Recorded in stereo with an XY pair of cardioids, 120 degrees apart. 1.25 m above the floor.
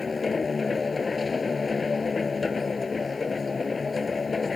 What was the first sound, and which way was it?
A machine running, 25° left.